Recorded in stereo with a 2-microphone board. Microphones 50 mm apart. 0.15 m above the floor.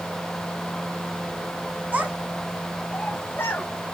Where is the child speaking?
30° right (ahead or behind), 0.9 m; by 3.7 s 50° left (ahead or behind), 1.1 m.